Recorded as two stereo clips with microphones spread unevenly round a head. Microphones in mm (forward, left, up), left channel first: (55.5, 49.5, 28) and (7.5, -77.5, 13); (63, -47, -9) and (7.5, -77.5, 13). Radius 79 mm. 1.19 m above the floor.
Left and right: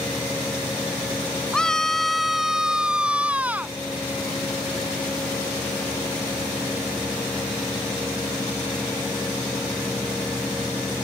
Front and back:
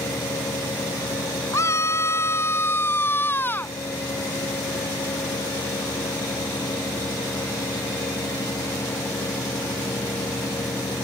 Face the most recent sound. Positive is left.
turn(degrees=-30)